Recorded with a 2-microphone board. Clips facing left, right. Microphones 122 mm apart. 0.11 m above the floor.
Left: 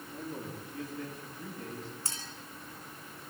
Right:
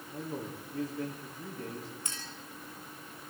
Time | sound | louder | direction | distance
0.1 | a man speaking | right 2 dB | 35° right (ahead or behind) | 8 m
2.0 | a clink | even | 35° left (ahead or behind) | 4 m